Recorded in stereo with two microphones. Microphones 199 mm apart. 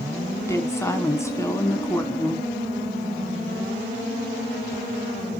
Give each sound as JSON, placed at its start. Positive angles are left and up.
{"t": 0.4, "sound": "a woman speaking", "side_deg": 15, "distance_m": 1.6}